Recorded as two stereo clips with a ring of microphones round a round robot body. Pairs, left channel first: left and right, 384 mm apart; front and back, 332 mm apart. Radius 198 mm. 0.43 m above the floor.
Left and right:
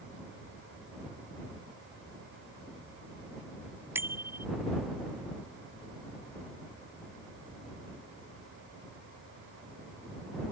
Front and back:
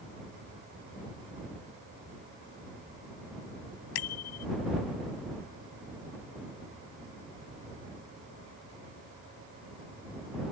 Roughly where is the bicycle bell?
Ahead.